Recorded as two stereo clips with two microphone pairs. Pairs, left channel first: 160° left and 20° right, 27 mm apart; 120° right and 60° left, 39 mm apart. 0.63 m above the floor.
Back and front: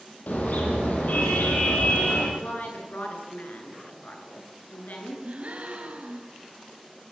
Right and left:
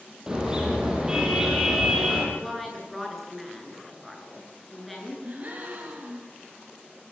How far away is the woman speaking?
About 8 m.